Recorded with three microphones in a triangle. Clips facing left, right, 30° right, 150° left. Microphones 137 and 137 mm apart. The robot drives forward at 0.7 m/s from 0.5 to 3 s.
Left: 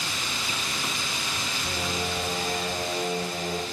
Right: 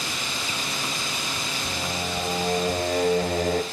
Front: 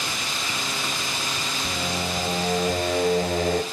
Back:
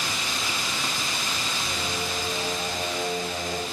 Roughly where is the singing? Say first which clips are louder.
Even, front 5 dB; ahead.